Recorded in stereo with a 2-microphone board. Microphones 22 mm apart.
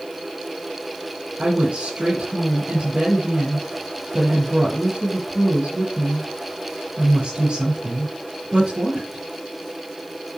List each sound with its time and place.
1.4 s a woman speaking: 75° right (ahead or behind), 6.5 m